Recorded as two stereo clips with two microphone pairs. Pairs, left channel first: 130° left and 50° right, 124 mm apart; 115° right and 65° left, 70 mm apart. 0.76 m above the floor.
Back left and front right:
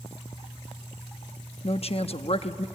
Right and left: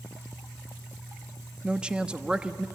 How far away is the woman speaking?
About 0.8 m.